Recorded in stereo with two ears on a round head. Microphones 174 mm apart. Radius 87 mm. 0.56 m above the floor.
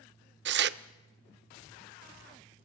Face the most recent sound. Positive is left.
turn(degrees=-60)  # may be behind; listen again after turning